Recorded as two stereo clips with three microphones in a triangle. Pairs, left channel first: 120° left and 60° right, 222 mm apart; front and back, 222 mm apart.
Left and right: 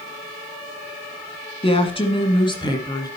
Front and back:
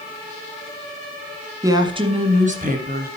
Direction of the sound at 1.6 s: 125° left.